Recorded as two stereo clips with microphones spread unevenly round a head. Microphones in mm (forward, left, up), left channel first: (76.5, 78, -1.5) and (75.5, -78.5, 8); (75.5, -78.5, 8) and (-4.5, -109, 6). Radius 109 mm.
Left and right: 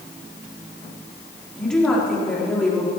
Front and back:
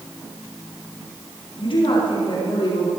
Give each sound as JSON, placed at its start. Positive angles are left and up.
{"t": 1.6, "sound": "a woman speaking", "azimuth_deg": 5, "distance_m": 4.0}